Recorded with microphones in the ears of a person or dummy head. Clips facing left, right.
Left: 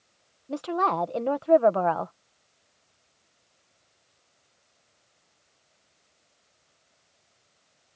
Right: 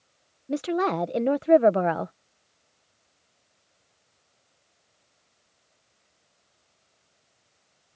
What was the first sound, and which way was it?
A woman speaking, 20° right (ahead or behind).